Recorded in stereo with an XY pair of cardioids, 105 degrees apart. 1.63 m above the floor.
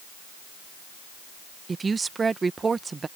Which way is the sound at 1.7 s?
35° right.